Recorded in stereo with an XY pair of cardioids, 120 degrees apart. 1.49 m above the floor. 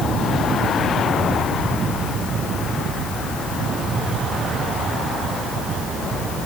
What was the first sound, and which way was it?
Only background noise.